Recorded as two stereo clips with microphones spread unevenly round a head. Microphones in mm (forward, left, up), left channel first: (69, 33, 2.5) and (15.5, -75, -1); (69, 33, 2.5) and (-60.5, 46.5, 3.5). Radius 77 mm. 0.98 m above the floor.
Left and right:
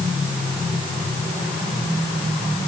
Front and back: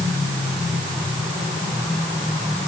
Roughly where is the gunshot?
I don't hear a gunshot.